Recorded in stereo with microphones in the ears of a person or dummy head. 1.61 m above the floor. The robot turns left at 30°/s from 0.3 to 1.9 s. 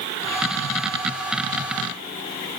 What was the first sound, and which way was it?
Only background noise.